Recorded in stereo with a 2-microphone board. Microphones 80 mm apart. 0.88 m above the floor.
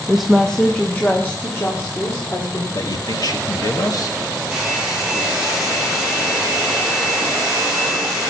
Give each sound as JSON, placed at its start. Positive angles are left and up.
{"t": 0.1, "sound": "a woman speaking", "side_deg": -10, "distance_m": 0.8}
{"t": 2.7, "sound": "a man speaking", "side_deg": 55, "distance_m": 1.7}
{"t": 4.5, "sound": "a hair dryer", "side_deg": -5, "distance_m": 6.5}